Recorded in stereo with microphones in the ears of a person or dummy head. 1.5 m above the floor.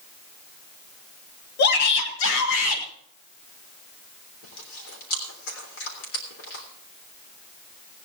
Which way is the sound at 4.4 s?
80° left.